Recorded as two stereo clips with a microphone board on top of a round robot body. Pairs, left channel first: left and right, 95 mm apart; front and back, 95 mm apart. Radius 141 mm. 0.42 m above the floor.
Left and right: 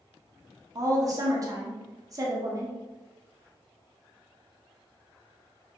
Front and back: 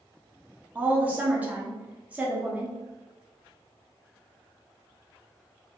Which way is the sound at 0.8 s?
115° right.